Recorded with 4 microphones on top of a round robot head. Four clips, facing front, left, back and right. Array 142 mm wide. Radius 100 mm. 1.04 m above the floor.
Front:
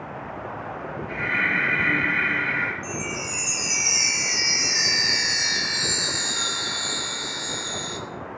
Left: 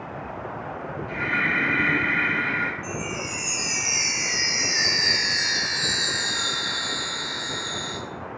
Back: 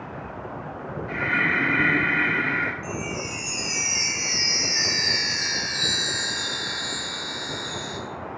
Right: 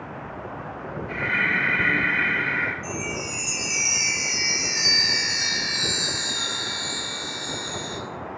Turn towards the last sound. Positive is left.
turn(degrees=65)